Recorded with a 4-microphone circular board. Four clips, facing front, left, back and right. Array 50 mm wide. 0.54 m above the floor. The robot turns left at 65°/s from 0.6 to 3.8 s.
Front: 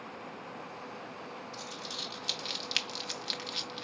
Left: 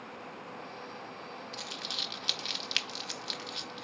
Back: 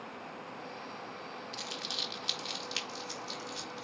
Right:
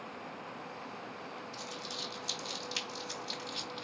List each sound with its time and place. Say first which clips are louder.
1.5 s crumpling: left 2 dB, back 1 dB; 140° left, 0.6 m; by 3.8 s 5° right, 0.6 m